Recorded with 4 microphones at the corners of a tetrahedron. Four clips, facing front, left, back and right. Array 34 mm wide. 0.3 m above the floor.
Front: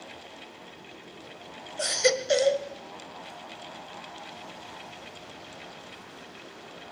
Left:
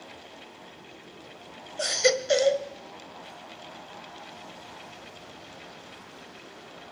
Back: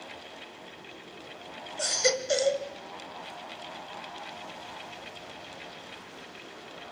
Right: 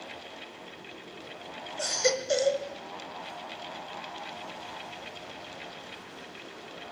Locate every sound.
1.8 s a baby crying: 65° left, 1.2 m